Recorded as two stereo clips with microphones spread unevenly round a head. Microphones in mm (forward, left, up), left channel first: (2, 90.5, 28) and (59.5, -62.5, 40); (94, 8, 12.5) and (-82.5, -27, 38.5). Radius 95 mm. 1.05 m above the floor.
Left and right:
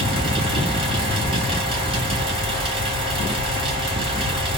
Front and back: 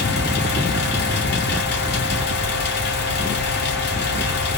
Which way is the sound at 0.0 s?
10° right.